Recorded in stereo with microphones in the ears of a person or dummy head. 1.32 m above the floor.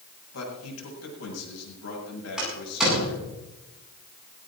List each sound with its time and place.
0.3 s a man speaking: 90° left, 7.5 m
2.4 s a door slam: 10° right (ahead or behind), 9.5 m